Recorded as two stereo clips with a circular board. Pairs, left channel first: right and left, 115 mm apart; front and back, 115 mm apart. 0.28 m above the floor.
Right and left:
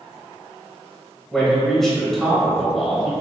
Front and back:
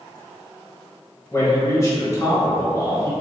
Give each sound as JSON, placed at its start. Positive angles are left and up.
{"t": 1.3, "sound": "a man speaking", "azimuth_deg": -5, "distance_m": 1.1}